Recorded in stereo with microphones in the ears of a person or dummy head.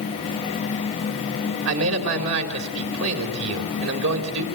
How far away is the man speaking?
About 4 m.